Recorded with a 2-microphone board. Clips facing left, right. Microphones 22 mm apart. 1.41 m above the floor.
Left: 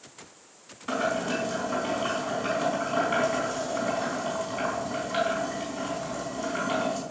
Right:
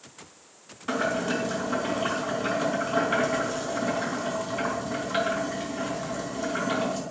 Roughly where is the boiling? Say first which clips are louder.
Right 1 dB; centre.